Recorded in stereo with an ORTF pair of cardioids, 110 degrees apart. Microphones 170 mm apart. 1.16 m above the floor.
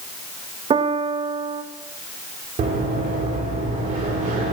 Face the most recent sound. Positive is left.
turn(degrees=-50)